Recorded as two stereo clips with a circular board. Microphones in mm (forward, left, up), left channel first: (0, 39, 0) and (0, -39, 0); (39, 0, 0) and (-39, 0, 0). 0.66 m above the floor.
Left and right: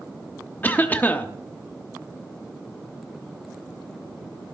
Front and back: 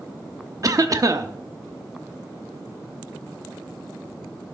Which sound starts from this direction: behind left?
A cough, at 0.6 s.